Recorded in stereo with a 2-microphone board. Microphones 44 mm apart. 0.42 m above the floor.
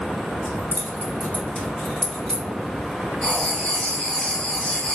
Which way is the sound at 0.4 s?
55° left (ahead or behind).